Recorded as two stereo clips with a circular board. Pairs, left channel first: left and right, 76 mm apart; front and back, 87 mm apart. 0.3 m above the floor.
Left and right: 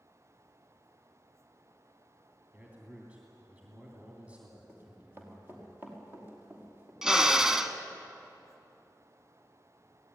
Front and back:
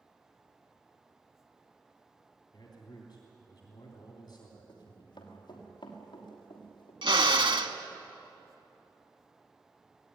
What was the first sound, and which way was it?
A man speaking, 20° right.